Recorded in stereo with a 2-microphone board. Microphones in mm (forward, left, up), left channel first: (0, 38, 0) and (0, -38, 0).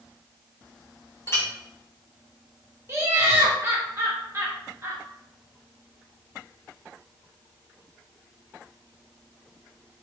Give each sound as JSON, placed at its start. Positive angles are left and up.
{"t": 1.3, "sound": "a clink", "side_deg": 35, "distance_m": 1.0}
{"t": 2.9, "sound": "laughter", "side_deg": -35, "distance_m": 0.9}